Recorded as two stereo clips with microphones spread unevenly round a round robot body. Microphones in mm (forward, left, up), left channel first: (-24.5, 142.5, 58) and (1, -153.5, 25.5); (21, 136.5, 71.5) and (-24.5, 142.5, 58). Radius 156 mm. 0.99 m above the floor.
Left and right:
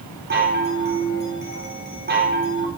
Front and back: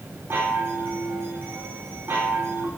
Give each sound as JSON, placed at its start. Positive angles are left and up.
{"t": 0.3, "sound": "a chime", "azimuth_deg": -140, "distance_m": 4.0}